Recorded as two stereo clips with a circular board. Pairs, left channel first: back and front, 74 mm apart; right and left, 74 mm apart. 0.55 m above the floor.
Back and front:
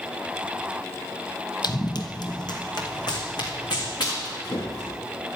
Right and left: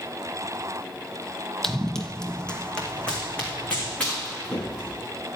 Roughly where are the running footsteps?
Behind.